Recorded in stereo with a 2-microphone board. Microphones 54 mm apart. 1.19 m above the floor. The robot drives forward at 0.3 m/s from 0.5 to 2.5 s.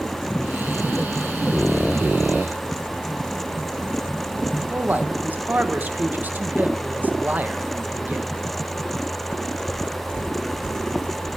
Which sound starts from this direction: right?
A man speaking, at 4.7 s.